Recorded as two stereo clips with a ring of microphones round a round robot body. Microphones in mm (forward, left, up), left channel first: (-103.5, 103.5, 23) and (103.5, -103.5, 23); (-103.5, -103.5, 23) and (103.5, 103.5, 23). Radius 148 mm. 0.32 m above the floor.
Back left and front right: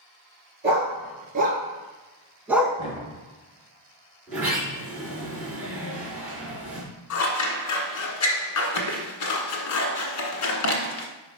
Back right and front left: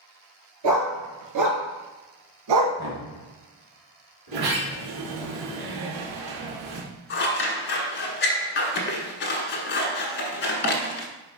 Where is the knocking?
65° left, 2 m.